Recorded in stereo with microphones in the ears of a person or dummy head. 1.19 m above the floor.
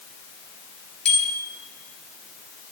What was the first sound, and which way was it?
A bicycle bell, 5° left (ahead or behind).